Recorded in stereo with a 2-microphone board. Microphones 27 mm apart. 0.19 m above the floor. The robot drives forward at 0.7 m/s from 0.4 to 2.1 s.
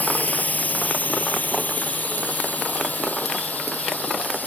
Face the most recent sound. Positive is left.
turn(degrees=75)  # may be behind; listen again after turning